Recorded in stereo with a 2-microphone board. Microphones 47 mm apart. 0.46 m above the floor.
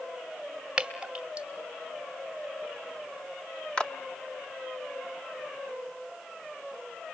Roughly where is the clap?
Centre.